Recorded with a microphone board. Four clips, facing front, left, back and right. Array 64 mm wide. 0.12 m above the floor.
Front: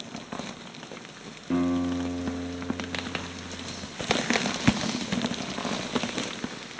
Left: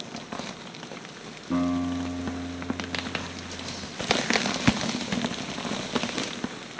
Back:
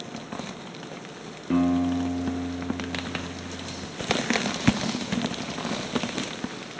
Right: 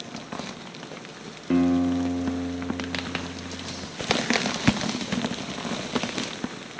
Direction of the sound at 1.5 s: 105° right.